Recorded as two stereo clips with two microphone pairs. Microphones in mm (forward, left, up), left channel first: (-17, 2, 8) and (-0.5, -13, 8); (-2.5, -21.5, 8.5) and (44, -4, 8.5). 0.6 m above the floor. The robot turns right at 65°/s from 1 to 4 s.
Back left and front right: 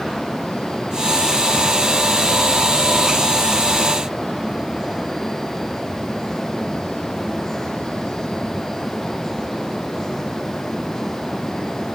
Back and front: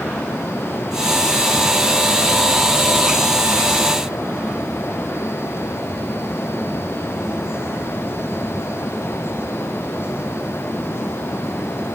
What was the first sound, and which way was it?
Only background noise.